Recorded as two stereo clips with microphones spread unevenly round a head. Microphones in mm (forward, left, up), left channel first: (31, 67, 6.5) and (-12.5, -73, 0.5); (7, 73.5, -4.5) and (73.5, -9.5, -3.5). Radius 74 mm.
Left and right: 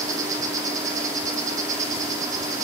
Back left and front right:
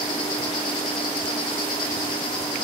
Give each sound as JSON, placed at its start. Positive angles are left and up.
{"t": 0.0, "sound": "an insect", "azimuth_deg": -175, "distance_m": 3.5}